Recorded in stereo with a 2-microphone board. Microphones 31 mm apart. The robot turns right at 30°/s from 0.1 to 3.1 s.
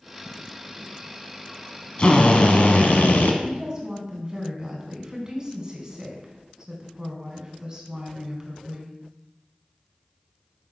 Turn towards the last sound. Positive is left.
turn(degrees=-25)  # may be behind; listen again after turning